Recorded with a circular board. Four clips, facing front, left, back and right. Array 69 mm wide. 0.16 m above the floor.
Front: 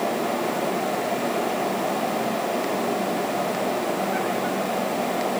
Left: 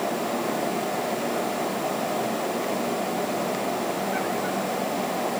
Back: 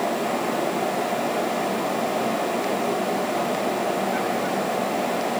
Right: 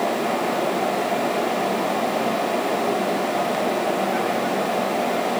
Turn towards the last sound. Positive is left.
No sound to turn to.